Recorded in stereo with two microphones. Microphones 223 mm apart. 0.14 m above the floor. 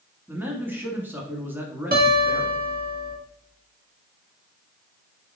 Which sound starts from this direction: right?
A guitar, at 1.9 s.